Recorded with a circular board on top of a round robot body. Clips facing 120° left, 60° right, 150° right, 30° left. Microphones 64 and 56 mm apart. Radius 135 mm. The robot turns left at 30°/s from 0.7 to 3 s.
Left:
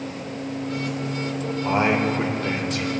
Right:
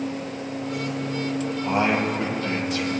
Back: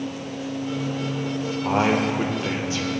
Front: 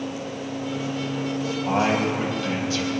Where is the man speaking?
175° right, 3 m; by 2.9 s 145° left, 3 m.